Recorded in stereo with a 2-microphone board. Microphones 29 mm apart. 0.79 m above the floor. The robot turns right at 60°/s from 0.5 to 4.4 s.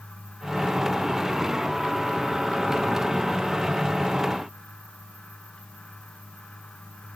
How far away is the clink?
No clink in this recording.